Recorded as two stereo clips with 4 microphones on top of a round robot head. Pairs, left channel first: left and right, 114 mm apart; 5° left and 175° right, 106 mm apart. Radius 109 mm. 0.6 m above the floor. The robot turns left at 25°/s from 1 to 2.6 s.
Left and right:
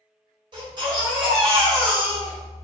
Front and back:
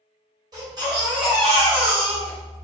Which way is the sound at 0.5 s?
130° right.